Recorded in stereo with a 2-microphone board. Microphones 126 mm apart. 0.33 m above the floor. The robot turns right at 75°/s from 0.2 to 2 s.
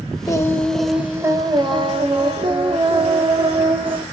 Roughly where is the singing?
Behind left.